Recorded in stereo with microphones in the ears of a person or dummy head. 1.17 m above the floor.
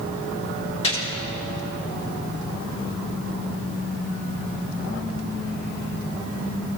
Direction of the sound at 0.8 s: 30° left (ahead or behind).